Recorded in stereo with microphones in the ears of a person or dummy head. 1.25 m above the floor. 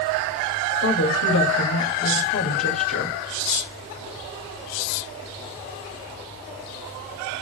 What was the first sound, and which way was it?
A woman speaking, 75° left (ahead or behind).